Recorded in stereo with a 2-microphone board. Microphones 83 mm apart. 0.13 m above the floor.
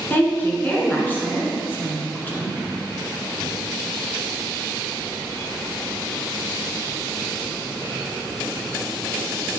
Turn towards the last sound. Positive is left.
turn(degrees=25)  # may be behind; listen again after turning